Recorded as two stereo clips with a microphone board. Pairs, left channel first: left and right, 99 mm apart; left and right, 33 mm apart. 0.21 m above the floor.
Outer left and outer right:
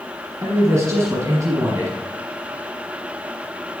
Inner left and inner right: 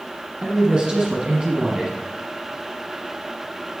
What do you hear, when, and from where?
0.4 s a man speaking: 30° right (ahead or behind), 1.4 m